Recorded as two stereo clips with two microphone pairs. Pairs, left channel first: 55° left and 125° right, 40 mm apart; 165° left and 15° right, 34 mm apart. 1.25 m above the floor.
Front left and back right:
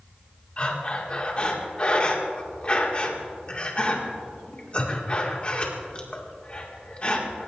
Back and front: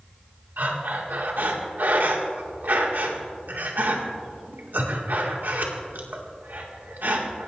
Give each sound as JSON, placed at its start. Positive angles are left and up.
{"t": 0.6, "sound": "breathing", "azimuth_deg": -5, "distance_m": 2.0}